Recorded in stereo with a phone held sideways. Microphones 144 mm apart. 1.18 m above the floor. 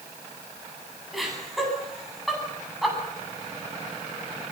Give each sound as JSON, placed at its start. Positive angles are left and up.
{"t": 1.1, "sound": "laughter", "side_deg": 0, "distance_m": 9.0}